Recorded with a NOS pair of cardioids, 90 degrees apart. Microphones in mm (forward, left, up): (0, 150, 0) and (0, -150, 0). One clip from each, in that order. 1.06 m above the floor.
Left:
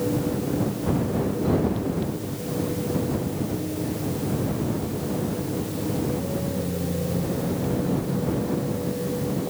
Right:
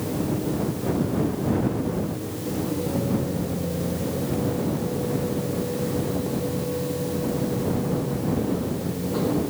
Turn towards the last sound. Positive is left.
No sound to turn to.